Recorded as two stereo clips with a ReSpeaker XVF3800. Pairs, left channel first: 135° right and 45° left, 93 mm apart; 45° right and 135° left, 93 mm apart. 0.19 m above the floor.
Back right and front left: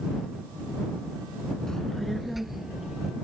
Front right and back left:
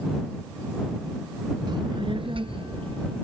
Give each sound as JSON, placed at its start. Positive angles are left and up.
{"t": 1.7, "sound": "a child speaking", "azimuth_deg": 145}